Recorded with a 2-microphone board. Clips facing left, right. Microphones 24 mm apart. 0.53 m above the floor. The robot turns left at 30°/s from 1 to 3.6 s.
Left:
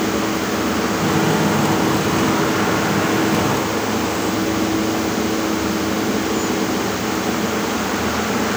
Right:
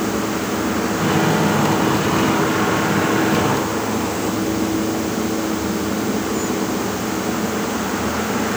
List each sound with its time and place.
Only background noise.